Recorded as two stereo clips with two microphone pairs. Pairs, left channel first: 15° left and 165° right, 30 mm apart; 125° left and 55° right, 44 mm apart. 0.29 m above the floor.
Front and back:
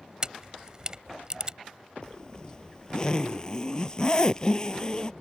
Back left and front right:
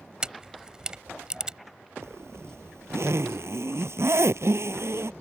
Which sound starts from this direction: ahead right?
A zipper, at 2.0 s.